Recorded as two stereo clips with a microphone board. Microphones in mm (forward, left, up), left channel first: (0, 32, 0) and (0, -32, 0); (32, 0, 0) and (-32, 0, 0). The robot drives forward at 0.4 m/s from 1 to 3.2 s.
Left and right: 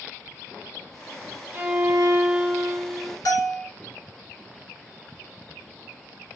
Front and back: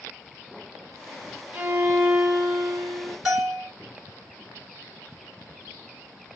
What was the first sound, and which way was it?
A violin, 125° right.